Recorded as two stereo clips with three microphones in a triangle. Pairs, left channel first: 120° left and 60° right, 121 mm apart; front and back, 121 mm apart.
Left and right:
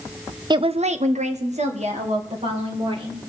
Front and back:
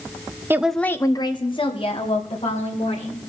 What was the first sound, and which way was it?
A woman speaking, 110° right.